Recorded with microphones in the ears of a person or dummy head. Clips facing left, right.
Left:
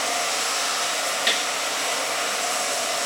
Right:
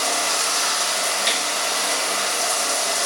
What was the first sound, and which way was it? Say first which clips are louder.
Running water: right 2 dB; 65° right (ahead or behind).